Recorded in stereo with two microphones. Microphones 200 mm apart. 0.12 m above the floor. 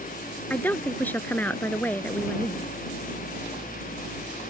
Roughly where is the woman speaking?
Centre.